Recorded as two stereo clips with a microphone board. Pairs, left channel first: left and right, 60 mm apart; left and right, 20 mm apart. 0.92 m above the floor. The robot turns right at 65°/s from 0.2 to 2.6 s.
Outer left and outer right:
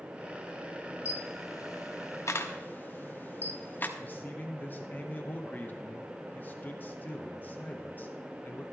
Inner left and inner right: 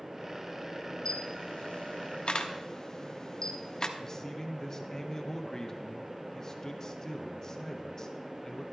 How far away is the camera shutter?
About 0.8 m.